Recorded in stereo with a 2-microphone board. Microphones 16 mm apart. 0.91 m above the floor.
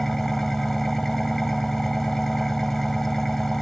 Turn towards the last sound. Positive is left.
turn(degrees=15)  # may be behind; listen again after turning